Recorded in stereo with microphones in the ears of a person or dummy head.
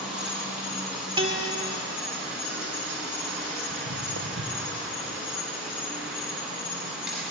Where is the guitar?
30° right (ahead or behind), 2.5 m.